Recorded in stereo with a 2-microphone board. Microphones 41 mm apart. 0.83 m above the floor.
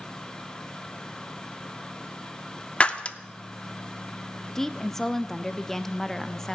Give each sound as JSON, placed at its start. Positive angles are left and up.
{"t": 2.8, "sound": "breaking glass", "side_deg": 30, "distance_m": 0.5}
{"t": 4.5, "sound": "a woman speaking", "side_deg": 10, "distance_m": 0.5}